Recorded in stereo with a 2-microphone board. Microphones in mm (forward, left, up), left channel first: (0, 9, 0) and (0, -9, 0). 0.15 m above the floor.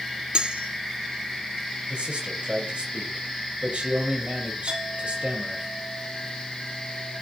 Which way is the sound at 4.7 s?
70° right (ahead or behind).